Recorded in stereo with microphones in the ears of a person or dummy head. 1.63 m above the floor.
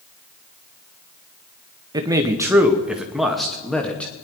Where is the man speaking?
30° right (ahead or behind), 1.5 m; by 4.1 s centre (ahead or behind), 2.5 m.